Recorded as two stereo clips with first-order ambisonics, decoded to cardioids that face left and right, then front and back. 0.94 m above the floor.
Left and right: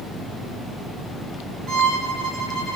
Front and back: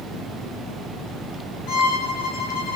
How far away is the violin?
About 1.7 m.